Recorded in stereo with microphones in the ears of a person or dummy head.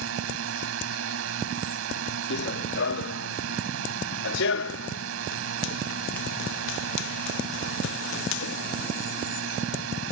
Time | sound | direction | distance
0.0 | a drone | 80° right | ?
2.3 | running footsteps | 65° left (ahead or behind) | ?